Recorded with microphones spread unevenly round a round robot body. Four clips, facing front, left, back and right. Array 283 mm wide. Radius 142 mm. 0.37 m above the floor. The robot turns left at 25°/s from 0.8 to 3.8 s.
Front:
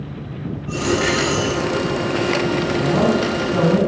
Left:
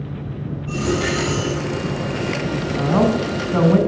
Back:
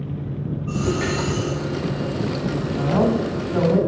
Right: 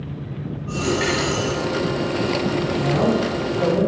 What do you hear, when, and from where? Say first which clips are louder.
0.7 s a dropped coin: even, front 4 dB; 170° left, 5.5 m; by 1.6 s 150° left, 5.5 m
2.7 s a woman speaking: left 4 dB, front 1 dB; 100° left, 3 m; by 3.8 s 75° left, 3 m